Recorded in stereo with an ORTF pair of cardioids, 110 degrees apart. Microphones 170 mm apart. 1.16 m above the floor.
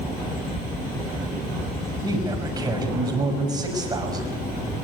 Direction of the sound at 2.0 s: 25° right.